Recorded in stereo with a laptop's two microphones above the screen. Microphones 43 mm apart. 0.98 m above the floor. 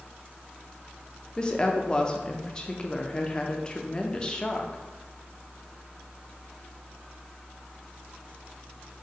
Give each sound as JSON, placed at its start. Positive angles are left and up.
{"t": 1.4, "sound": "a woman speaking", "side_deg": 20, "distance_m": 0.5}